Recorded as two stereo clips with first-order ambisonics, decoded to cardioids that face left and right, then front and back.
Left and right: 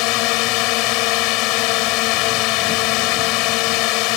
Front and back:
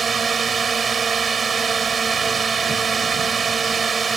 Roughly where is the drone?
Left.